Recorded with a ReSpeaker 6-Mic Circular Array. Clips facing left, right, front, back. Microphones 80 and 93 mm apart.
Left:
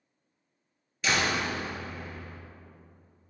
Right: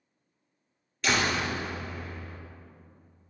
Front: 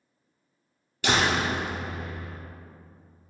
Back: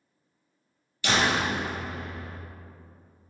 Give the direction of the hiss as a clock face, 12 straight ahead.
No hiss in this recording.